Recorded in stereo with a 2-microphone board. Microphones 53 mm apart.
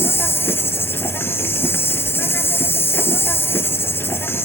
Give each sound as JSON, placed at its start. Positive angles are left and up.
{"t": 0.0, "sound": "an insect", "side_deg": 50, "distance_m": 1.5}